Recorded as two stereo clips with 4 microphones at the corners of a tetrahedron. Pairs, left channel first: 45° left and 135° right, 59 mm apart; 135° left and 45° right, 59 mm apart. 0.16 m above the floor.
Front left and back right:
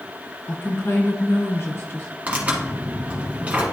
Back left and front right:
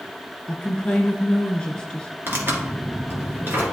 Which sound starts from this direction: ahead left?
A woman speaking, at 0.5 s.